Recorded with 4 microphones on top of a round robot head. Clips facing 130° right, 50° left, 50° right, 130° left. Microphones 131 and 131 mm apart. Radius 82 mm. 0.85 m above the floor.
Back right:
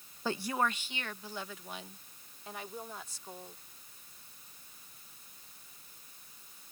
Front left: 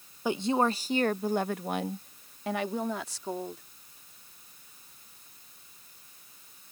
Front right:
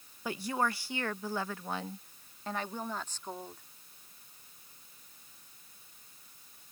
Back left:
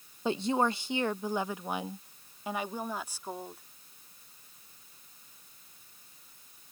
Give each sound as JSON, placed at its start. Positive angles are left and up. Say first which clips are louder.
{"t": 0.2, "sound": "a woman speaking", "louder": "front left 7 dB, back left 5 dB", "azimuth_deg": 105}